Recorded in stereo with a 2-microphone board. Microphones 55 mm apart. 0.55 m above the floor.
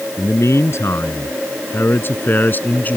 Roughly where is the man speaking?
Left.